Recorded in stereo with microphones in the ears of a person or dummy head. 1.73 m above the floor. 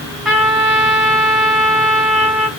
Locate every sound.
0.2 s a trumpet: centre (ahead or behind), 2.5 m